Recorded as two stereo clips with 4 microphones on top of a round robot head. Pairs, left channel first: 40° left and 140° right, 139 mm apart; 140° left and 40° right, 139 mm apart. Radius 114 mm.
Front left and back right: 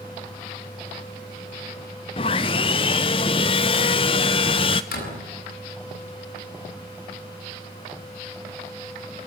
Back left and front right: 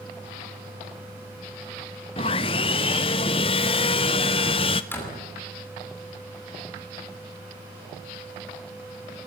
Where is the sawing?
90° left, 0.6 m.